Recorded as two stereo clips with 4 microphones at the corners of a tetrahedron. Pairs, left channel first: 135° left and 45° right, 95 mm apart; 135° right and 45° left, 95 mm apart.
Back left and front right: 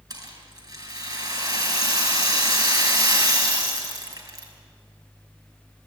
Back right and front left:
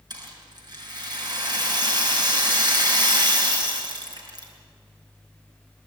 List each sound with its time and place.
0.1 s a rattle: straight ahead, 6 m